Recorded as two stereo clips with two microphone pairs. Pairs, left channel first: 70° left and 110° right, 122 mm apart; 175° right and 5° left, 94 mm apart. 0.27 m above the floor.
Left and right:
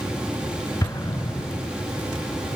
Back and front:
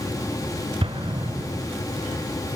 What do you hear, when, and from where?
0.8 s an explosion: 5° left, 0.8 m